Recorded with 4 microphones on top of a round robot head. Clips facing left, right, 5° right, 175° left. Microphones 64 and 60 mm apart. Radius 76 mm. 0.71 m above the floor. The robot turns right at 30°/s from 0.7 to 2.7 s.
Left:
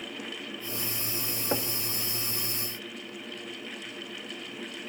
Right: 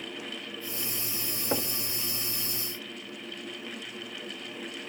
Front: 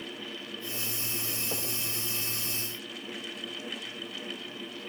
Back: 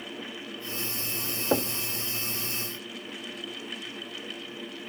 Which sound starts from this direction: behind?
Knocking, at 1.5 s.